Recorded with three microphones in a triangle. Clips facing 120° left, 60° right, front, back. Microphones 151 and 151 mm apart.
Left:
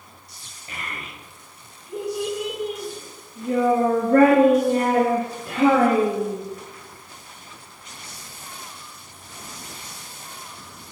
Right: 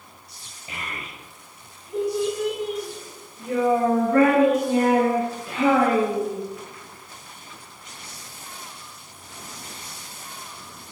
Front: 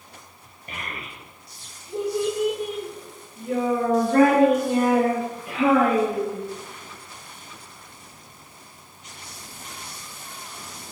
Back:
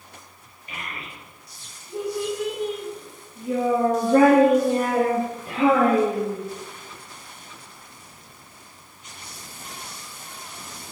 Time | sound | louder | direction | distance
0.7 | a child speaking | even, front 1 dB | 10° left | 1.5 m